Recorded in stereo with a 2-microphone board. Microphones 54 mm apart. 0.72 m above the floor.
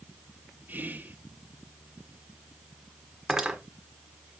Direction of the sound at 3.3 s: 5° right (ahead or behind).